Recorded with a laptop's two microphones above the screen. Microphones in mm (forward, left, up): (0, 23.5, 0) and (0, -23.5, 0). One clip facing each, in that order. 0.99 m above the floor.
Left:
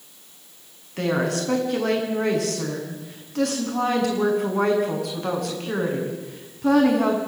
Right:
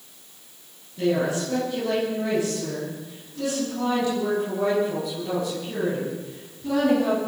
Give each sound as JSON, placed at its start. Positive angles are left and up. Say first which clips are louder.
{"t": 1.0, "sound": "a woman speaking", "louder": "even", "side_deg": 65, "distance_m": 8.0}